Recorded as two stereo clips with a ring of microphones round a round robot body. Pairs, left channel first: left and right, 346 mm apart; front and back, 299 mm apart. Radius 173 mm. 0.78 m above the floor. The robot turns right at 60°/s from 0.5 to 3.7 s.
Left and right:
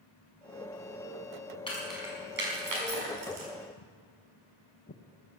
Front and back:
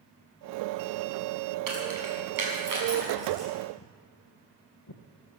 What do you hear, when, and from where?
1.7 s keys jangling: 165° left, 5.5 m; by 3.5 s 85° right, 5.5 m
3.8 s footsteps: 50° left, 1.4 m; by 5.0 s 20° left, 1.8 m